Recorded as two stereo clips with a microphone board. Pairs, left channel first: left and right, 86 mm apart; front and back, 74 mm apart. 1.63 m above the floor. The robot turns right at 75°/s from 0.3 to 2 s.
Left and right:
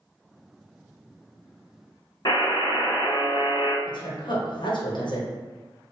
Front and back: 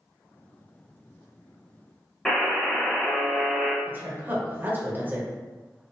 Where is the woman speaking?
115° left, 1.2 m.